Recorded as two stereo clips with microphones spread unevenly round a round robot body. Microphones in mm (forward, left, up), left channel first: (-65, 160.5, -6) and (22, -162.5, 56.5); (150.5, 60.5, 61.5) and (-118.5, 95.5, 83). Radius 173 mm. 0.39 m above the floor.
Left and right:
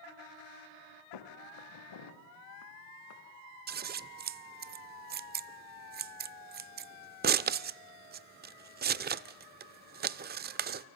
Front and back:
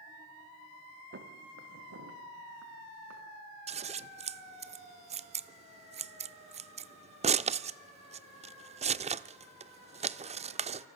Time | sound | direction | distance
1.1 | footsteps | 125° left | 3 m
3.7 | scissors | 135° right | 0.5 m